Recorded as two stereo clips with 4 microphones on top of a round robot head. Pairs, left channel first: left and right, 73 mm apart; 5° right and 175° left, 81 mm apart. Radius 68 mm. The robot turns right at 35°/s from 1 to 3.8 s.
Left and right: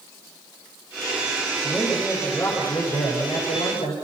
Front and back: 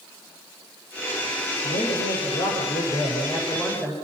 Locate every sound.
1.6 s a man speaking: straight ahead, 6.5 m; by 3.9 s 75° left, 6.5 m